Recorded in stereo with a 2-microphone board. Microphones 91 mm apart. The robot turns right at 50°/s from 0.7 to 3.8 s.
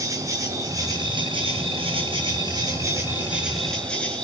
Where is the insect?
145° right, 5.5 m; by 4.2 s 10° left, 5.5 m.